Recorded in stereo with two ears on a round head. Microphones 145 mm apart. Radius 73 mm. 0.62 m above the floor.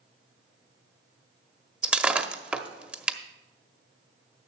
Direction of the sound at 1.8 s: 10° right (ahead or behind).